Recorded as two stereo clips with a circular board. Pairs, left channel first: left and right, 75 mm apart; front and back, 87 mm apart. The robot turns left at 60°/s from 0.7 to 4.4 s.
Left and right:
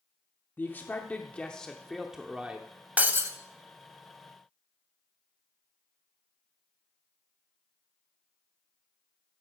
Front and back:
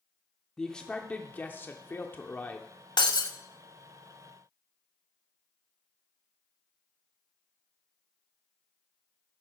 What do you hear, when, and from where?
0.6 s a man speaking: 75° left, 0.7 m; by 2.7 s 45° right, 0.7 m
3.0 s breaking glass: 20° right, 0.8 m; by 3.3 s 40° right, 0.8 m